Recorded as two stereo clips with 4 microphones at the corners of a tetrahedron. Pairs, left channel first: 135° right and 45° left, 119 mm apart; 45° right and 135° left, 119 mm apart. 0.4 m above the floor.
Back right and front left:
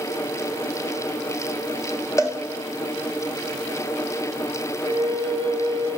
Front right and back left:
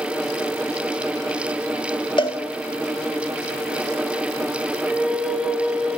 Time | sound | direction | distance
2.2 | a cowbell | 80° right | 1.5 m
4.8 | a flute | 65° left | 1.4 m